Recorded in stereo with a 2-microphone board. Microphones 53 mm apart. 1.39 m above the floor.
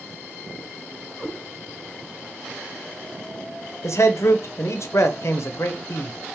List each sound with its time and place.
1.2 s a cat meowing: 15° left (ahead or behind), 1.7 m
3.8 s a man speaking: 65° left (ahead or behind), 0.8 m